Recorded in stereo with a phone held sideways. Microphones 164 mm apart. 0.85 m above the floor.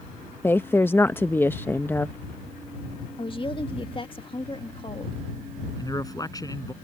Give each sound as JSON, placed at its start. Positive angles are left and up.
{"t": 0.4, "sound": "a woman speaking", "side_deg": 15}
{"t": 3.2, "sound": "a woman speaking", "side_deg": 35}
{"t": 5.8, "sound": "a man speaking", "side_deg": 25}